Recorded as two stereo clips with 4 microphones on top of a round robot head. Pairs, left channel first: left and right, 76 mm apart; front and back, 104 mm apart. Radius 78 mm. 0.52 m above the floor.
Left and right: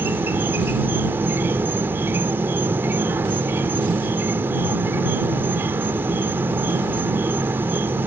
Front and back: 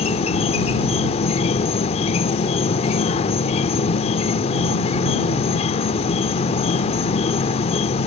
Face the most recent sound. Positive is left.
turn(degrees=-25)